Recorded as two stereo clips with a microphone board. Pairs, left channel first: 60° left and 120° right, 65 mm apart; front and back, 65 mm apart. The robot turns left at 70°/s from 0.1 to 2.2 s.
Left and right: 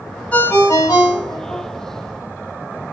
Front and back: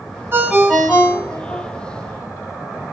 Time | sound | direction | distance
0.3 | a ringtone | 125° left | 1.0 m